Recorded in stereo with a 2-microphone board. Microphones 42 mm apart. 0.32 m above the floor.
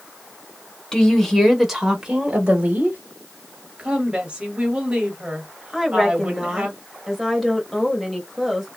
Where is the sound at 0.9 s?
20° left (ahead or behind), 0.9 m; by 3.0 s 40° right (ahead or behind), 1.0 m.